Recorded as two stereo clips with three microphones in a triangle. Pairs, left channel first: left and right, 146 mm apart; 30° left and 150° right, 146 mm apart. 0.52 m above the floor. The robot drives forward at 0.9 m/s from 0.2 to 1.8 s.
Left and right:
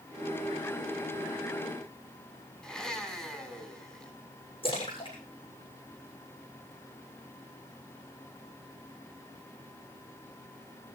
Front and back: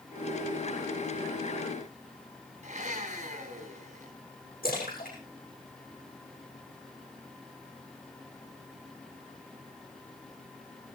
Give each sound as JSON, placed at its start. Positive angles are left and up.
{"t": 2.6, "sound": "a blender", "azimuth_deg": 180, "distance_m": 4.0}
{"t": 4.6, "sound": "a splash", "azimuth_deg": 40, "distance_m": 7.0}